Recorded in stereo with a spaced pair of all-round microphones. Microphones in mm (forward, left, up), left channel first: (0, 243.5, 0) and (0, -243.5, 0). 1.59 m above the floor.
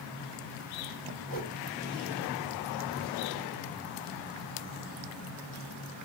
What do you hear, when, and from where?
1.3 s a whoosh: 15° left (ahead or behind), 2 m